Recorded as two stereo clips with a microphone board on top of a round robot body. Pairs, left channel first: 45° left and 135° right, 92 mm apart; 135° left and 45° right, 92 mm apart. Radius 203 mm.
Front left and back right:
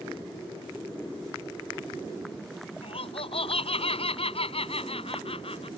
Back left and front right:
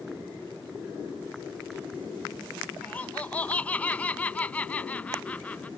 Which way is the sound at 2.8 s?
60° left.